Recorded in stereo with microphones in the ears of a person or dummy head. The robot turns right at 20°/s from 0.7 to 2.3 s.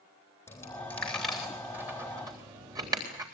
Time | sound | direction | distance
0.5 | a dropped coin | 10° left (ahead or behind) | 3.5 m